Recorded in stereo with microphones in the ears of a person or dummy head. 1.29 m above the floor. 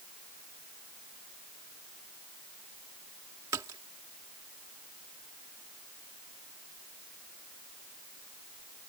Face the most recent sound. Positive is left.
turn(degrees=-15)  # may be behind; listen again after turning